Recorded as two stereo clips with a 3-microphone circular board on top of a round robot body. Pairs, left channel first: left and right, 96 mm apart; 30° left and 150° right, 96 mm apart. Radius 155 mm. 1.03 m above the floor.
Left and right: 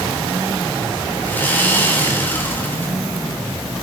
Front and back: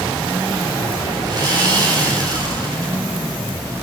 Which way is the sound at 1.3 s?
160° left.